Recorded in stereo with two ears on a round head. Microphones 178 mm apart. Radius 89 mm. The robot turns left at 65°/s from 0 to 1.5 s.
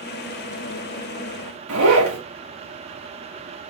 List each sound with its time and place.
1.7 s a zipper: 85° right, 3 m